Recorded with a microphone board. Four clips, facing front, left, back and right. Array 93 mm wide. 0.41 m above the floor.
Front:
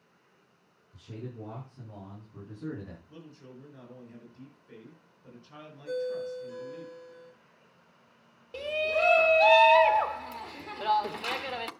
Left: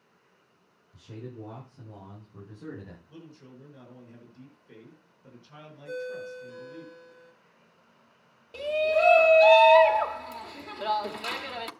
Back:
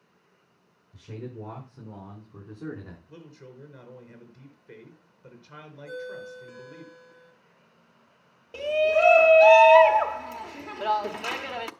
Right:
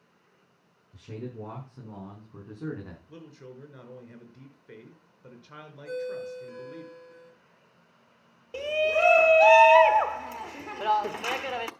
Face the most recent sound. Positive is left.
turn(degrees=-120)